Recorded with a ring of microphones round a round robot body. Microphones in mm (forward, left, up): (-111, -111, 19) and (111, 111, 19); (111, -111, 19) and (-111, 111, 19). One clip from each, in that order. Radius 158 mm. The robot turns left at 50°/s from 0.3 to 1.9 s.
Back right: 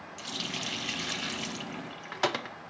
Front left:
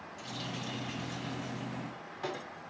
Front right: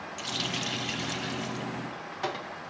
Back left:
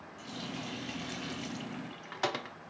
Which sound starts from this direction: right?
A running tap, at 0.2 s.